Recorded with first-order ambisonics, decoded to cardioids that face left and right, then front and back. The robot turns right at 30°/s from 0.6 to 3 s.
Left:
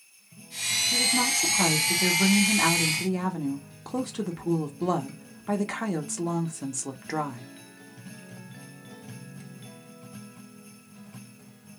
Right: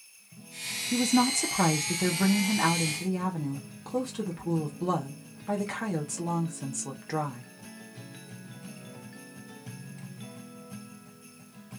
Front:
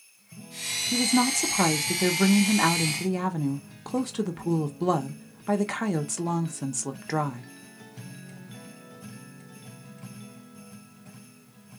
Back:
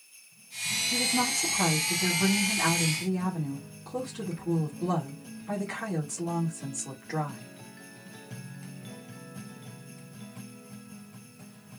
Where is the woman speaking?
40° right, 1.2 m; by 7.5 s 20° left, 1.2 m.